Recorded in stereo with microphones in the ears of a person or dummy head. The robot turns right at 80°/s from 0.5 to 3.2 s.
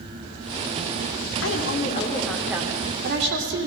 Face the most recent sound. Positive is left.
turn(degrees=-115)